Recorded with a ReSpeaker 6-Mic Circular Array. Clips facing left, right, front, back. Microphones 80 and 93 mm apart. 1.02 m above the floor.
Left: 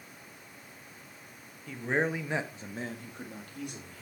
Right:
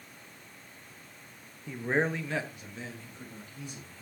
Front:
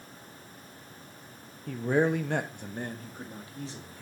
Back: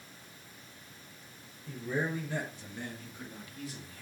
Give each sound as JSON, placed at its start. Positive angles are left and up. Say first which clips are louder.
{"t": 1.7, "sound": "a man speaking", "louder": "right 1 dB, front 8 dB", "azimuth_deg": -15, "distance_m": 1.1}